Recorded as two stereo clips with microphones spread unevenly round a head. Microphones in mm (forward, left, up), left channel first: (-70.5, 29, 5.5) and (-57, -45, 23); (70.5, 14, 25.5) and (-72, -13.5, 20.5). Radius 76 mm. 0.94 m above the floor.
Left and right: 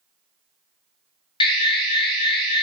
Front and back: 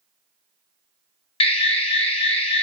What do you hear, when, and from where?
1.4 s an alarm: 65° left, 1.1 m